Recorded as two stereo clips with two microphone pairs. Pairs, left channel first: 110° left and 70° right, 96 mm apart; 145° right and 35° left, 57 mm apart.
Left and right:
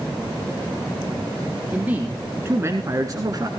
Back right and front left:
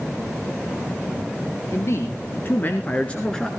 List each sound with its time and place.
1.7 s a man speaking: 140° right, 1.9 m; by 3.5 s 65° right, 1.3 m